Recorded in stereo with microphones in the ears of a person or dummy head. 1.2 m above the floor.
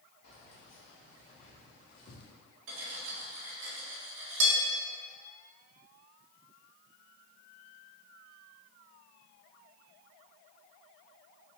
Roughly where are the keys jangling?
Left.